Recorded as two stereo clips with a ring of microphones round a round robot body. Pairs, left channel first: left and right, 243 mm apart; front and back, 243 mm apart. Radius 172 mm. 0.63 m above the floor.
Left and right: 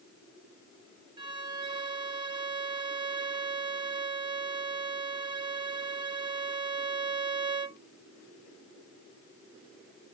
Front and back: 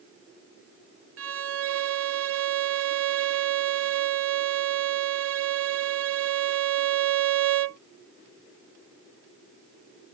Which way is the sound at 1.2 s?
160° right.